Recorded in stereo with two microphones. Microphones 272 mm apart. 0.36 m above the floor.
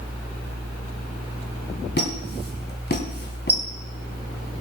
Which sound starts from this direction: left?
A squeak, at 2.0 s.